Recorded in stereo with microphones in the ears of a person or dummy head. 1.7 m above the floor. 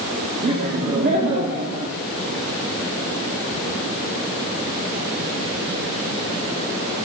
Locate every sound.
0.4 s laughter: 35° right (ahead or behind), 0.9 m; by 1.9 s 70° right (ahead or behind), 1.4 m